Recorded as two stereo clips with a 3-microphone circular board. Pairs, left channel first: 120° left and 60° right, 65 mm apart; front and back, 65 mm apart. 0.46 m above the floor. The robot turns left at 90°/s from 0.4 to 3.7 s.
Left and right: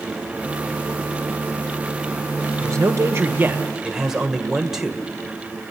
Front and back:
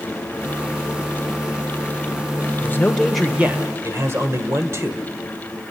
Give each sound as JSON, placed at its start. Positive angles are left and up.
{"t": 2.6, "sound": "a man speaking", "azimuth_deg": -40, "distance_m": 1.5}